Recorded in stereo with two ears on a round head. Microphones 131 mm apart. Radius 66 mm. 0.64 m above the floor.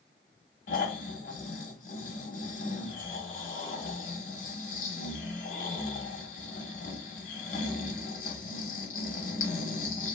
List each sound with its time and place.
0.7 s snoring: 55° left (ahead or behind), 0.7 m